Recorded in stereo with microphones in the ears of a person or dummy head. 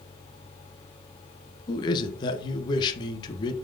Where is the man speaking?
25° left (ahead or behind), 1.4 m.